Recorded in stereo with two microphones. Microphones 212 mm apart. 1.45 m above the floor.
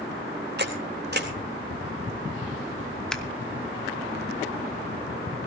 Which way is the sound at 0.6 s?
50° right (ahead or behind).